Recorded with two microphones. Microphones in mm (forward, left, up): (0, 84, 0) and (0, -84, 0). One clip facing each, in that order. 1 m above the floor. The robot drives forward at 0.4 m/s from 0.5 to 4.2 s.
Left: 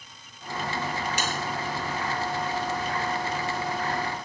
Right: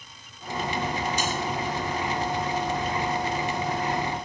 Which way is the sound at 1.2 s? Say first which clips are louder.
Right 2 dB; 75° left (ahead or behind).